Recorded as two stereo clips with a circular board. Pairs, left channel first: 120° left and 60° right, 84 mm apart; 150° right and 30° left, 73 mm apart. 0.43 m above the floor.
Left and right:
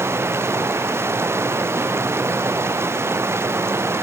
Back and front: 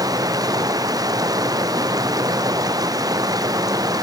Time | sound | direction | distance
0.0 | running water | straight ahead | ?